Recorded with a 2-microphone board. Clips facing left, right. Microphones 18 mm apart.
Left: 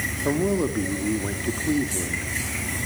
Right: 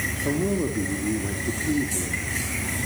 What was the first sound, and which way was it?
A man speaking, 30° left (ahead or behind).